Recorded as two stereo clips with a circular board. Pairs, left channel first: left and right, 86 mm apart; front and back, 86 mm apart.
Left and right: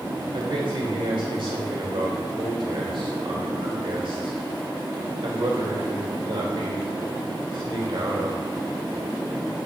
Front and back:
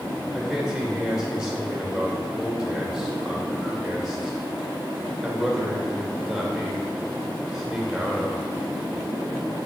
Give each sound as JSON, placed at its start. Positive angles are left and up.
{"t": 0.3, "sound": "a man speaking", "azimuth_deg": -95, "distance_m": 2.5}